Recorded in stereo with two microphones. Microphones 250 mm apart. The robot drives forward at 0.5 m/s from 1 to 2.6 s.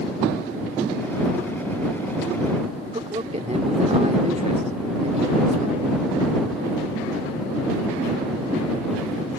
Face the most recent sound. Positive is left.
turn(degrees=-25)  # may be behind; listen again after turning